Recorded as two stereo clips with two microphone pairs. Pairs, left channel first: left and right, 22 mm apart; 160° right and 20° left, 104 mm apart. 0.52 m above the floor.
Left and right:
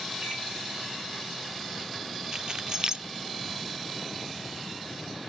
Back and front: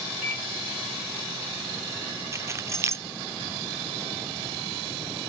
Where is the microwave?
55° right, 4.5 m.